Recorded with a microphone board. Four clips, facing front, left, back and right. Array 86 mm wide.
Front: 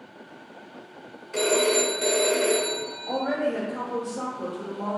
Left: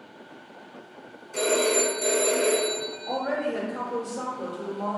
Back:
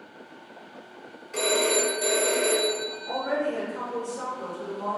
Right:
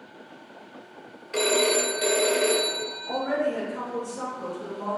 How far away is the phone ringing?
About 0.7 m.